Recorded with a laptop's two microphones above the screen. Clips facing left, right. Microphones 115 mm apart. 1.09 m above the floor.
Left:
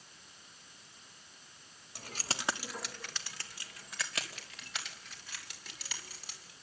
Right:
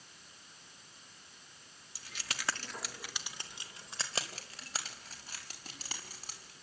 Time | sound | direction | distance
1.9 | keys jangling | 55° left (ahead or behind) | 1.3 m